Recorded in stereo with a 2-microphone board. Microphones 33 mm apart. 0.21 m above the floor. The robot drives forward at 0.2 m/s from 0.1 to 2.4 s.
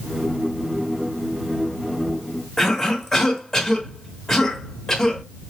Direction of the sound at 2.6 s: 15° left (ahead or behind).